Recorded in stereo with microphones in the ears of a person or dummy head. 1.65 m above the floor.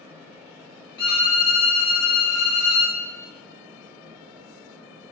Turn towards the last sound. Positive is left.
turn(degrees=15)  # may be behind; listen again after turning